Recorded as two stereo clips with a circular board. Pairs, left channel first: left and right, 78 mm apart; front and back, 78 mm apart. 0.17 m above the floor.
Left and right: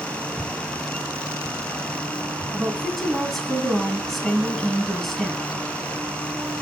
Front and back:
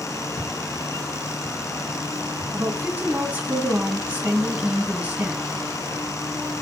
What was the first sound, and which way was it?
Footsteps, 10° right.